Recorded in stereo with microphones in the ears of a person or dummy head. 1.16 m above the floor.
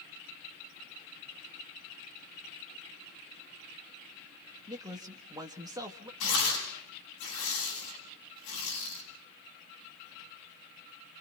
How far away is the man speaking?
About 1.8 m.